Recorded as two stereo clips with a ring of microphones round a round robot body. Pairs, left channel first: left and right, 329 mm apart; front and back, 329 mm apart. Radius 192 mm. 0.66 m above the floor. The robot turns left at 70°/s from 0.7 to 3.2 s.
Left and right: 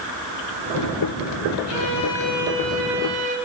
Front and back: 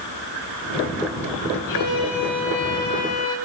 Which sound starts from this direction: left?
A violin, at 1.7 s.